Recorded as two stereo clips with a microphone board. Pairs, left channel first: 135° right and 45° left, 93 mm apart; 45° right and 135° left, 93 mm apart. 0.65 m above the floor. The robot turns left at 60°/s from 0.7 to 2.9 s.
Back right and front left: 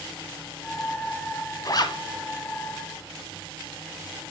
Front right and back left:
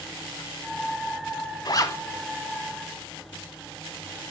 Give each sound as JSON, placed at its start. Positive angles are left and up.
{"t": 1.6, "sound": "a zipper", "azimuth_deg": -85, "distance_m": 1.2}